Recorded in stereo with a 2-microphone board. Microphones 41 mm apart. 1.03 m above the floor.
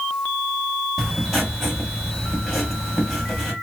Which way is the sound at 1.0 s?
Centre (ahead or behind).